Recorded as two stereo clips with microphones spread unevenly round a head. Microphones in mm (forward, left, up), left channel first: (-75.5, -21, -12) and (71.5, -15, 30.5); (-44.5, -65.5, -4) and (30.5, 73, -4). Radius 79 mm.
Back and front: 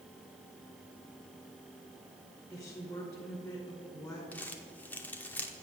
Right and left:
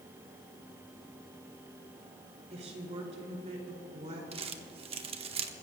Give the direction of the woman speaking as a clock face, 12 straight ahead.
8 o'clock.